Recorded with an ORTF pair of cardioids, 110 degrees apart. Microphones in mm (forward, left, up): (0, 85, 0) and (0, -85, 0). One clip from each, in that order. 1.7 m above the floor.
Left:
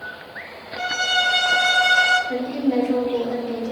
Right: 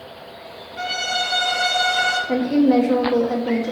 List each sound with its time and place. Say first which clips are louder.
0.8 s a violin: left 2 dB; 5° right, 2 m
2.3 s a woman speaking: right 5 dB; 55° right, 1.6 m